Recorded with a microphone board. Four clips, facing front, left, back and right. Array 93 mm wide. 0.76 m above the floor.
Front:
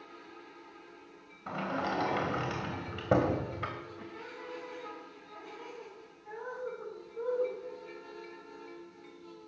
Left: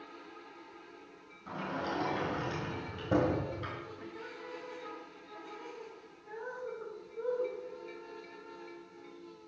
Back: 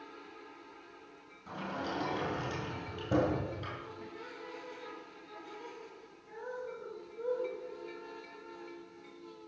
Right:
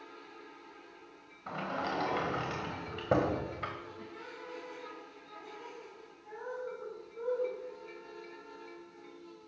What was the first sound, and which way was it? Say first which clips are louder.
A sliding door: right 1 dB, front 5 dB; 35° right.